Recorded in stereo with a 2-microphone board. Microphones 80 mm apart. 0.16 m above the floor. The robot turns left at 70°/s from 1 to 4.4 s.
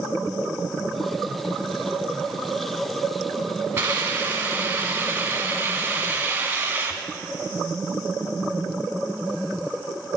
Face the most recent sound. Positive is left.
turn(degrees=-25)  # may be behind; listen again after turning